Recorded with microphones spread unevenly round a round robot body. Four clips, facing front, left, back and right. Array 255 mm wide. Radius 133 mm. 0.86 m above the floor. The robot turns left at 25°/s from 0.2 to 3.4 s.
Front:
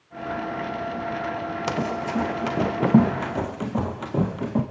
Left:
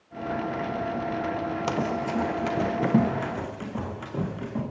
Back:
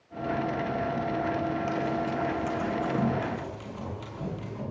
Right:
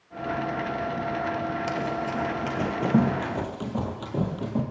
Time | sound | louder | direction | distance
1.7 | running footsteps | left 1 dB, front 2 dB | 35° left | 1.8 m